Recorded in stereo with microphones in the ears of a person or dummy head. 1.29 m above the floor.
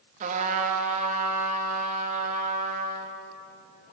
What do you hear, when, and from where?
0.2 s a trumpet: 45° right (ahead or behind), 1.7 m